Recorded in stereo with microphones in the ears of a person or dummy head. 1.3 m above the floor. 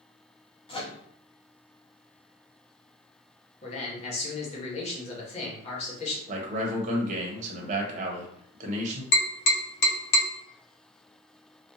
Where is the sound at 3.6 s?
40° left (ahead or behind), 1.0 m.